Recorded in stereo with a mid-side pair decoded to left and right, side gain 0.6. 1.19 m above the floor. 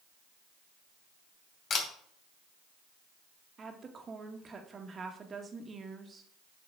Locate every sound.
1.7 s a camera shutter: 45° left, 3 m
3.6 s a woman speaking: 30° right, 1.9 m